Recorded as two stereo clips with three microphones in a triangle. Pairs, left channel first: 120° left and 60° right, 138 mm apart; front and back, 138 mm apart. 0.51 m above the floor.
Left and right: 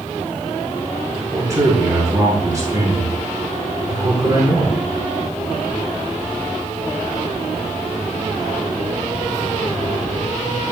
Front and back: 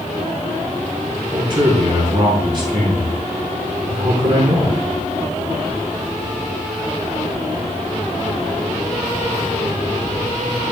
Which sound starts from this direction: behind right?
A man speaking, at 1.3 s.